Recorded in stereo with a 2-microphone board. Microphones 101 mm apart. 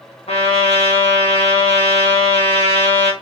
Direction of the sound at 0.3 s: 75° left (ahead or behind).